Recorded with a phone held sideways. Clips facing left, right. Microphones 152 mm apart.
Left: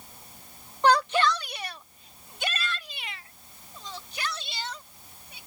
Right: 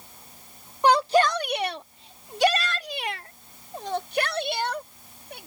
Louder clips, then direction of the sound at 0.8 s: Right 3 dB; 15° right (ahead or behind).